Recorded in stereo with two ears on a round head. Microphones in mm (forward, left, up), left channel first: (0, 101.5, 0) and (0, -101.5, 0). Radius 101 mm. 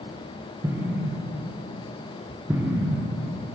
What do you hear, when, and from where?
0.6 s an explosion: 10° right (ahead or behind), 0.7 m